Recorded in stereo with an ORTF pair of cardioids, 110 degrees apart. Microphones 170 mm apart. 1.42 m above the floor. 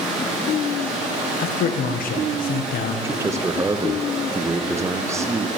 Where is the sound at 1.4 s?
60° left, 1.0 m.